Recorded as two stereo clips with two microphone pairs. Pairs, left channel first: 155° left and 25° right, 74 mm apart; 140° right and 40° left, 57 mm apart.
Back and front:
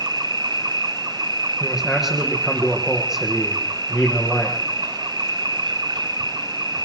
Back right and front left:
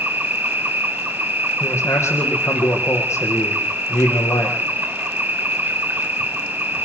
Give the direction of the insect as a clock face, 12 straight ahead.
1 o'clock.